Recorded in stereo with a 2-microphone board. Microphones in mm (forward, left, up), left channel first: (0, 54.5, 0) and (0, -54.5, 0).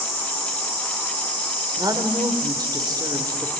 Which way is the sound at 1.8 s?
35° right (ahead or behind).